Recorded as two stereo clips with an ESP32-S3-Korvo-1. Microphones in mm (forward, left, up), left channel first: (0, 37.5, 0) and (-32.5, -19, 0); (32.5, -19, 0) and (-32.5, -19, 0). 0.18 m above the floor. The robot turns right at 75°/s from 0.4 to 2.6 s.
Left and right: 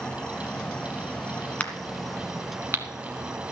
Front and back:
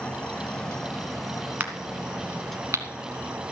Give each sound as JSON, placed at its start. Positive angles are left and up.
{"t": 0.0, "sound": "an insect", "azimuth_deg": 20, "distance_m": 1.3}
{"t": 1.6, "sound": "a crack", "azimuth_deg": 120, "distance_m": 1.3}